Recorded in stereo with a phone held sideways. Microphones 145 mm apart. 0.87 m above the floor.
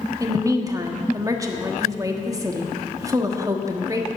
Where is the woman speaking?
25° right (ahead or behind), 1.4 m.